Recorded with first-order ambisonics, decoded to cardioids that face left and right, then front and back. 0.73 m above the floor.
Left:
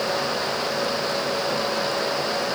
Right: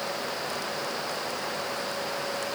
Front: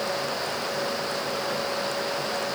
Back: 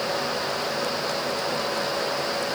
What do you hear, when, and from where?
Only background noise.